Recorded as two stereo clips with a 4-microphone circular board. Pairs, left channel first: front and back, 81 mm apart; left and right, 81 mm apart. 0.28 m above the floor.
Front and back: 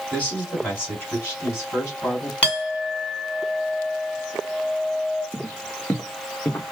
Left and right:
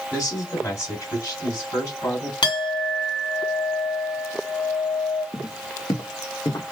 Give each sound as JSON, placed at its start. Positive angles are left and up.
{"t": 0.1, "sound": "a man speaking", "azimuth_deg": 60, "distance_m": 2.0}
{"t": 2.4, "sound": "a clink", "azimuth_deg": 75, "distance_m": 1.8}
{"t": 5.3, "sound": "footsteps", "azimuth_deg": 50, "distance_m": 0.9}